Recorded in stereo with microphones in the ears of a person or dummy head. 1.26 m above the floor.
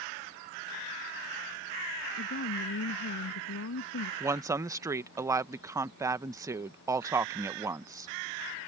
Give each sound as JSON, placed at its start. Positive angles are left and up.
{"t": 2.2, "sound": "a woman speaking", "side_deg": 65}
{"t": 4.2, "sound": "a woman speaking", "side_deg": -20}